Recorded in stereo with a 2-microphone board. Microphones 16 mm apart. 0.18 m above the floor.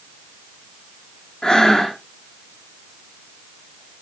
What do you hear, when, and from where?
1.4 s breathing: 70° left (ahead or behind), 2.5 m